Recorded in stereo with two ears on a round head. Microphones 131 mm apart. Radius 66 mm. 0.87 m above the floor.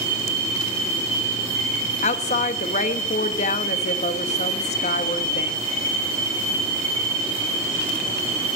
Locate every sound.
2.0 s a woman speaking: 50° left (ahead or behind), 1.1 m